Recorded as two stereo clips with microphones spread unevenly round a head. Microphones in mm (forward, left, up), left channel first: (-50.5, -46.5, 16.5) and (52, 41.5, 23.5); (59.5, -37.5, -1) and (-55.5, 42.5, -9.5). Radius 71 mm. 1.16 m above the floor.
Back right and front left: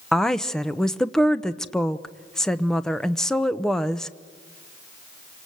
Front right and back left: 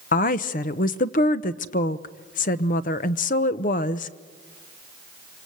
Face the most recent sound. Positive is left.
turn(degrees=-55)